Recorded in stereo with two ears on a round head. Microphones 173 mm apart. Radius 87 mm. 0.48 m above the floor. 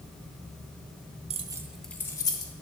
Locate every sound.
1.3 s keys jangling: 30° right (ahead or behind), 0.6 m; by 2.5 s 25° left (ahead or behind), 1.1 m